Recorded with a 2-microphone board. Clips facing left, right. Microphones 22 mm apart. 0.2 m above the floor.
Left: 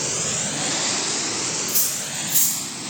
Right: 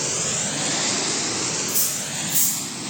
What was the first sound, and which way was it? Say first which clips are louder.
Cutlery clinking: even; 65° left (ahead or behind).